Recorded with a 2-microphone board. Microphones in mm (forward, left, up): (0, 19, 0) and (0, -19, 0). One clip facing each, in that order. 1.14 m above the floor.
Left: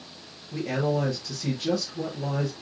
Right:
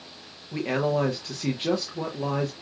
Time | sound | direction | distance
0.5 | a man speaking | 40° right (ahead or behind) | 0.7 m